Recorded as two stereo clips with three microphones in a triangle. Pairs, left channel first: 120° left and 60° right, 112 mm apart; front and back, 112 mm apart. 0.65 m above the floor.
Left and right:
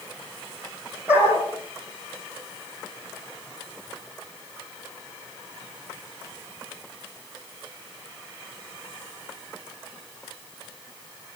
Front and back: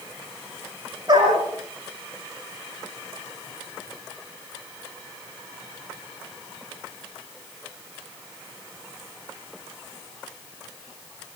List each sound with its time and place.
1.1 s a dog barking: 135° right, 9 m